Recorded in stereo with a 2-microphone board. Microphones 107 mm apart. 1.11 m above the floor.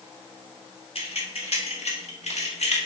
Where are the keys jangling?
60° left (ahead or behind), 1.6 m; by 2.8 s 80° left, 1.6 m.